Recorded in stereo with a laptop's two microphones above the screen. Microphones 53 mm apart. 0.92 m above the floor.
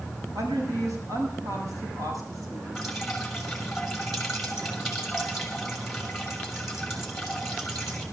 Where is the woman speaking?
75° right (ahead or behind), 8 m; by 2.6 s 85° right, 7.5 m.